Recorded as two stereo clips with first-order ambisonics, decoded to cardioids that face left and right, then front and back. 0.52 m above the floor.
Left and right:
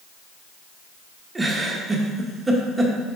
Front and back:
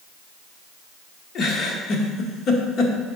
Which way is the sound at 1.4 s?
20° right.